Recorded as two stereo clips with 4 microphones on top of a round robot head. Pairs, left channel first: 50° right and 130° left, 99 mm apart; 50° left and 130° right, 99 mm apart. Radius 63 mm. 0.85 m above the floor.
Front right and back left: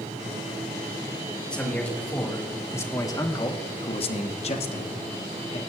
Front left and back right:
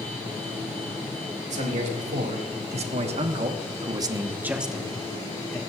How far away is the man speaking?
About 2.5 m.